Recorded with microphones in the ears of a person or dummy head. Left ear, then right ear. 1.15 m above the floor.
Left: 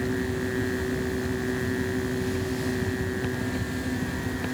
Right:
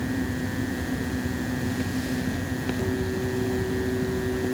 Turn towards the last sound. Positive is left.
No sound to turn to.